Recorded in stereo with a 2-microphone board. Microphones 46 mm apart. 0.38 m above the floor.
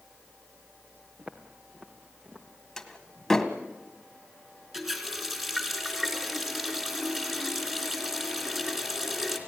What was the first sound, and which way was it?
Footsteps, 30° right (ahead or behind).